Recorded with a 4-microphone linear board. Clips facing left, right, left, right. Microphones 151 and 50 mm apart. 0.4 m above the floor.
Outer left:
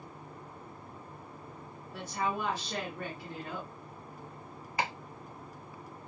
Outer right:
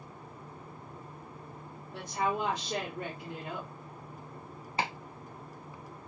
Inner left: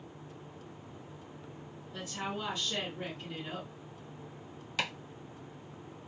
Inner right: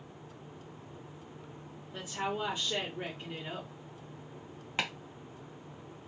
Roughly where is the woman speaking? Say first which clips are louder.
Outer right 2 dB, inner right 3 dB; centre.